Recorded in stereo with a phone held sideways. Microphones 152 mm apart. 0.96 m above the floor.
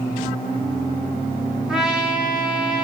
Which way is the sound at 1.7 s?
5° right (ahead or behind).